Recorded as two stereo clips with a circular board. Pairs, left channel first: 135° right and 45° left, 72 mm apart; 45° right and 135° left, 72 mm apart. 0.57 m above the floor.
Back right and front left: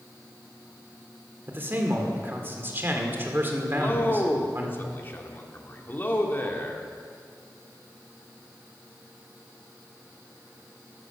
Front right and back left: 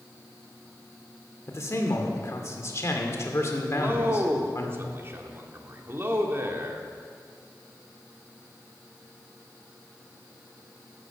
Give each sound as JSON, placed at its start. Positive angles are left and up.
{"t": 1.5, "sound": "a man speaking", "azimuth_deg": -10, "distance_m": 2.0}
{"t": 3.7, "sound": "a man speaking", "azimuth_deg": 175, "distance_m": 1.5}